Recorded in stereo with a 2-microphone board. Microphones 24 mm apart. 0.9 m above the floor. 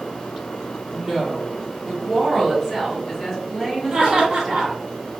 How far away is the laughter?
About 1.6 m.